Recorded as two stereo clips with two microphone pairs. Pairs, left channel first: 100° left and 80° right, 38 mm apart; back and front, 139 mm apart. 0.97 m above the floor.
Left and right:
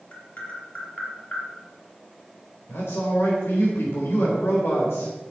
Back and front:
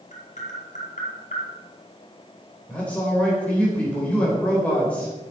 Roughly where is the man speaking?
Left.